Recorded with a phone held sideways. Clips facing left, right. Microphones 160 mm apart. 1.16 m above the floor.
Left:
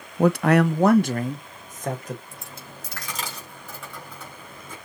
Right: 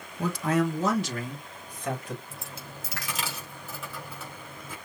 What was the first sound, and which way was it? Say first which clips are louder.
A man speaking: left 8 dB; 60° left (ahead or behind).